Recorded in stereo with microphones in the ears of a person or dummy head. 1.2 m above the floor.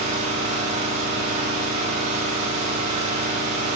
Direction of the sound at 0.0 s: 30° right (ahead or behind).